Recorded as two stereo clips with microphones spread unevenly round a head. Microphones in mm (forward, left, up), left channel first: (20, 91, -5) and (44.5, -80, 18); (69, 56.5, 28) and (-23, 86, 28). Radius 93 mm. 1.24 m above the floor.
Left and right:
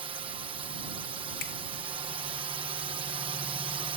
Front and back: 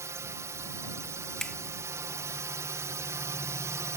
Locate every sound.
0.0 s a drone: 145° right
1.4 s a finger snap: 65° left